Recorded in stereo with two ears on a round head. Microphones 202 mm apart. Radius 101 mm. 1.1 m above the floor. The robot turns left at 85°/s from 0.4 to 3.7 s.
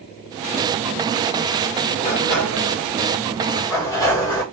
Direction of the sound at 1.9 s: 160° left.